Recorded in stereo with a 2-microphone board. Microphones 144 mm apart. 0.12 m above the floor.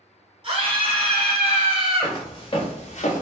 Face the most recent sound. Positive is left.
turn(degrees=60)  # may be behind; listen again after turning